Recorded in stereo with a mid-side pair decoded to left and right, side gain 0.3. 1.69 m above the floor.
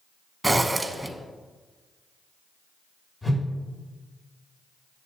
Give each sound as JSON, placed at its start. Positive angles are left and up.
{"t": 0.4, "sound": "a zipper", "azimuth_deg": -15, "distance_m": 1.1}
{"t": 3.2, "sound": "a whoosh", "azimuth_deg": 30, "distance_m": 3.0}